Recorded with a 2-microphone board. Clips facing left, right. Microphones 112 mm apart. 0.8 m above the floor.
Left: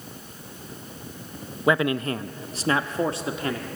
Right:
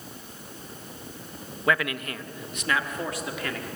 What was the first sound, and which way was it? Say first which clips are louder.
A man speaking: left 5 dB; 20° left (ahead or behind).